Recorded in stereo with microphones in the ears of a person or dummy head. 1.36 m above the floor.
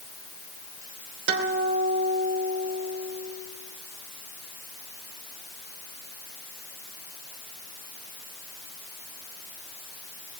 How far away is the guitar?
About 3 m.